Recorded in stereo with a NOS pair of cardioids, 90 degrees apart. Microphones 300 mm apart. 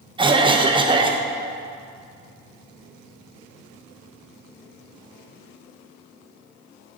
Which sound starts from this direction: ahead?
A cough, at 0.2 s.